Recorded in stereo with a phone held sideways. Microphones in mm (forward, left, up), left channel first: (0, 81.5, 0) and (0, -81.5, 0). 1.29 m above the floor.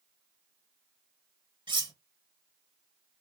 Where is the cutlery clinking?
30° right (ahead or behind), 0.7 m.